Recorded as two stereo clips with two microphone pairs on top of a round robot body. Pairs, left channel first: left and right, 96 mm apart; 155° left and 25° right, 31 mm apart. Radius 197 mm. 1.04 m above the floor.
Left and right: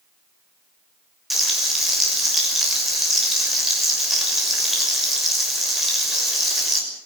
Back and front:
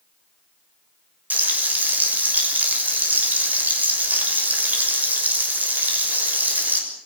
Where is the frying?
5° right, 6.5 m.